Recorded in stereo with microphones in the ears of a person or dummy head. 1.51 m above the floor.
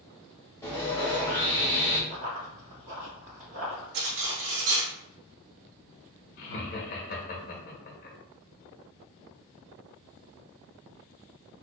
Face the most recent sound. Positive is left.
turn(degrees=45)  # may be behind; listen again after turning